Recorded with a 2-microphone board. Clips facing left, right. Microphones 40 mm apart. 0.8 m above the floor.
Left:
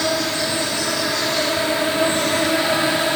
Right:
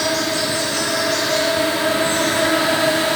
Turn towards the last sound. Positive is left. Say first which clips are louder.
# right 1 dB
turn(degrees=-75)  # may be behind; listen again after turning